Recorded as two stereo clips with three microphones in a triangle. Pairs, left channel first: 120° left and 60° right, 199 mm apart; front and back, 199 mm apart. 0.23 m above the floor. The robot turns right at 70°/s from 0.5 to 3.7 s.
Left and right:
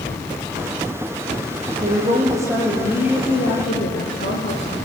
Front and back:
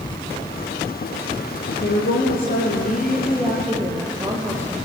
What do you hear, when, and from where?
1.8 s a woman speaking: 25° right, 7 m; by 4.8 s 105° left, 7 m